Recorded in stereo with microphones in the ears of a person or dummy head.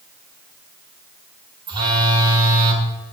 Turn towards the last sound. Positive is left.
turn(degrees=-20)  # may be behind; listen again after turning